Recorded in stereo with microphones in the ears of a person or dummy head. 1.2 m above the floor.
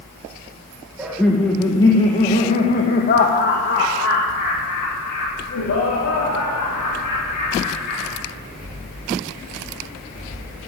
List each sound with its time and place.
1.0 s laughter: 5° right (ahead or behind), 1.4 m; by 8.2 s 80° left, 4.5 m